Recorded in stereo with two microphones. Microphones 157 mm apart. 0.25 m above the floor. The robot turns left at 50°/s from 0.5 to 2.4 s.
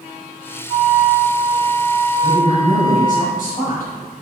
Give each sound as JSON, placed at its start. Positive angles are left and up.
{"t": 0.7, "sound": "a flute", "azimuth_deg": -70, "distance_m": 1.3}
{"t": 2.2, "sound": "a woman speaking", "side_deg": 55, "distance_m": 1.7}